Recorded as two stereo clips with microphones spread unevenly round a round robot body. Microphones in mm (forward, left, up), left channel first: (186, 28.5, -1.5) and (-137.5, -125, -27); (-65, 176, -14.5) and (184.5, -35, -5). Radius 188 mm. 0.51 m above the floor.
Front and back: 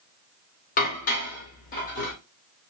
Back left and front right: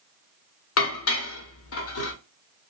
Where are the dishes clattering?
95° left, 0.9 m.